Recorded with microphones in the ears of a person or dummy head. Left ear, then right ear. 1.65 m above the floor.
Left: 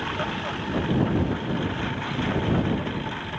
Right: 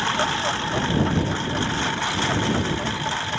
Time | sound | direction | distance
0.0 | a lawn mower | 80° right | ?